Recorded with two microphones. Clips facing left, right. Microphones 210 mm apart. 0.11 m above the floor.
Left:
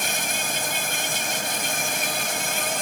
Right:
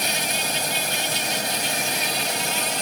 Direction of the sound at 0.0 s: 50° left (ahead or behind).